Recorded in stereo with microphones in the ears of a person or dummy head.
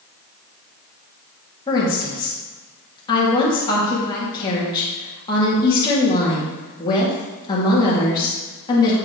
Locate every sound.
1.7 s a woman speaking: 25° left (ahead or behind), 3 m